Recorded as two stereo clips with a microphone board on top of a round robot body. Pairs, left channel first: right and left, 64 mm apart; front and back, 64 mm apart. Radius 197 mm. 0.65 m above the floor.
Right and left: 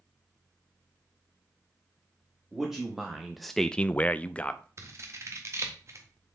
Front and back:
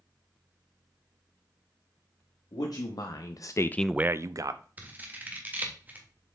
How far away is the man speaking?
About 1.4 m.